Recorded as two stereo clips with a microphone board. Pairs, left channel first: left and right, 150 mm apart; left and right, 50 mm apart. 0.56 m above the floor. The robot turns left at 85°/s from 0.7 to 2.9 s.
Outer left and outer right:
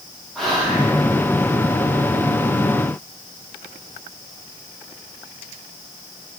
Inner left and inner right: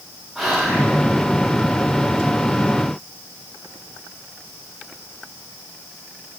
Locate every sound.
0.3 s whispering: centre (ahead or behind), 0.9 m; by 0.9 s 10° right (ahead or behind), 0.9 m